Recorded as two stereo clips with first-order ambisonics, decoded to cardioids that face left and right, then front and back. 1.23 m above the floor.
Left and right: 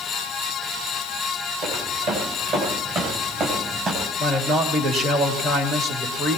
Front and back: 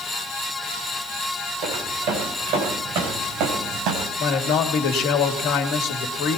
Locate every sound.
1.6 s footsteps: 130° right, 7 m; by 4.1 s 150° right, 4 m
4.2 s a man speaking: 30° right, 2.5 m